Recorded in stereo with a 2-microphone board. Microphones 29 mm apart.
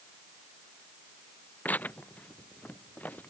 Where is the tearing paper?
75° left (ahead or behind).